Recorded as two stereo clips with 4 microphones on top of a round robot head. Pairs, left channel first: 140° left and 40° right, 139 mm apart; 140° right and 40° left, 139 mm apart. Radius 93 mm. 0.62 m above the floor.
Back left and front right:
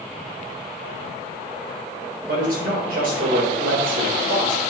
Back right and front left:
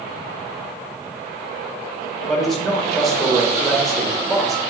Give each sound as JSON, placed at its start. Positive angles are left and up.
{"t": 2.3, "sound": "a man speaking", "azimuth_deg": -50, "distance_m": 3.0}